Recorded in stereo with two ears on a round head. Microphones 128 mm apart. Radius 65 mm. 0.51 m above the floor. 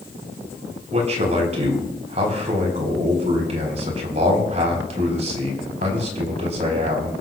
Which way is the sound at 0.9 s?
45° right (ahead or behind).